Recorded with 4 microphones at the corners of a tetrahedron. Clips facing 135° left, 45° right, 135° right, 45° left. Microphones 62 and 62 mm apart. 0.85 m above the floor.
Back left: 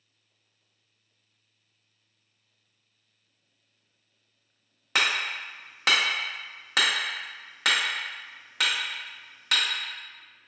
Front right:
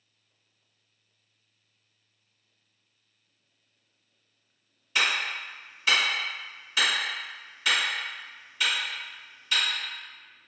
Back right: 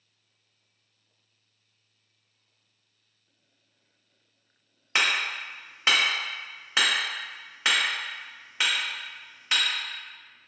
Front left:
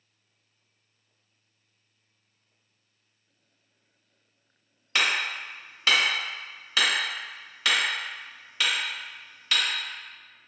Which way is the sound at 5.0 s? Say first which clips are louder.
Back left 1 dB, even; 160° left.